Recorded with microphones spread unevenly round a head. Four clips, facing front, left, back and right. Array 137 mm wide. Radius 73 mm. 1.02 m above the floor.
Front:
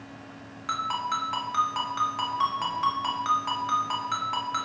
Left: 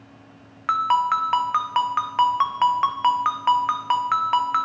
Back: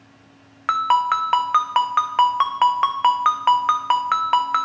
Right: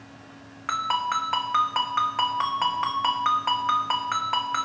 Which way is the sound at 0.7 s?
Straight behind.